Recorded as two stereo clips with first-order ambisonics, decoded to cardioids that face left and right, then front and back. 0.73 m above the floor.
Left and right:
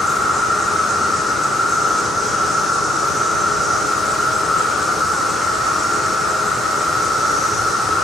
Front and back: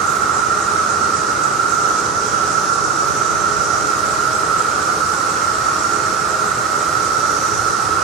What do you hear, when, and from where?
0.0 s an insect: 175° left, 1.1 m